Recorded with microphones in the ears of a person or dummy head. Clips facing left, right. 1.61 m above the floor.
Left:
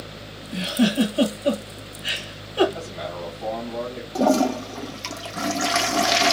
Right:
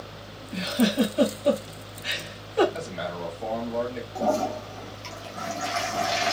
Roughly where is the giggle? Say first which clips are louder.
Left 3 dB; centre.